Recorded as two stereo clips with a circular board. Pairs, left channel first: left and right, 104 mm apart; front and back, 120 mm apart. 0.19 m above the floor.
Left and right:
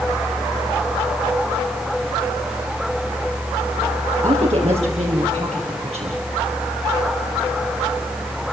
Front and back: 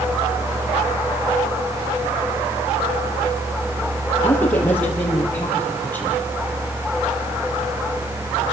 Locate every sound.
4.2 s a woman speaking: 75° right, 4.5 m